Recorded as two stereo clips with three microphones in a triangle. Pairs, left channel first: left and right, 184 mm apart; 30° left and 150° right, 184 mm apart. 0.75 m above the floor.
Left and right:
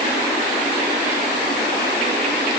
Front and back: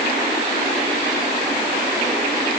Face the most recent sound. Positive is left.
No sound to turn to.